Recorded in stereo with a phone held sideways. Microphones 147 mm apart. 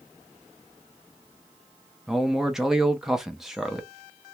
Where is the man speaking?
5° right (ahead or behind), 0.7 m.